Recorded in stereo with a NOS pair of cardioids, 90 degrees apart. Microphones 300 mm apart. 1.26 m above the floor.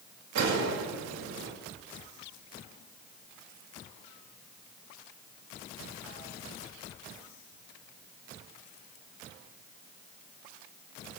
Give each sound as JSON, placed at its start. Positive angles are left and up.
{"t": 0.3, "sound": "a gunshot", "azimuth_deg": -60, "distance_m": 3.5}